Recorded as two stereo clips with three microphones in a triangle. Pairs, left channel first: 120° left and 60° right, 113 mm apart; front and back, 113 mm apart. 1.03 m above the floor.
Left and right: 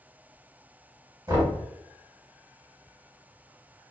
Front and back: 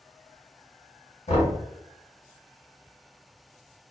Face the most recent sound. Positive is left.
turn(degrees=0)